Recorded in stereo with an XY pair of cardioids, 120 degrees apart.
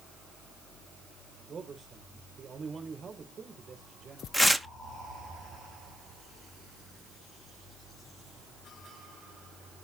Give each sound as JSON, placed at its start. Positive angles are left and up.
{"t": 1.5, "sound": "a man speaking", "azimuth_deg": -30, "distance_m": 4.0}
{"t": 4.3, "sound": "tearing paper", "azimuth_deg": 5, "distance_m": 0.9}